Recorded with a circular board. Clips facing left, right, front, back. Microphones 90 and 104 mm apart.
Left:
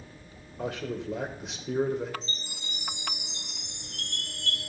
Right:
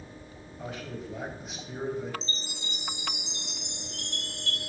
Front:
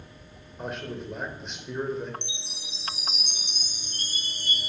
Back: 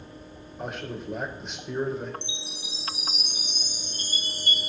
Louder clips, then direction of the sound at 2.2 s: Right 2 dB, back 4 dB; 25° right.